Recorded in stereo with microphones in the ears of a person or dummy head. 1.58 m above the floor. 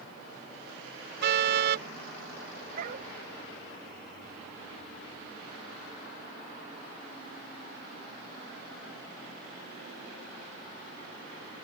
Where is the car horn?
70° right (ahead or behind).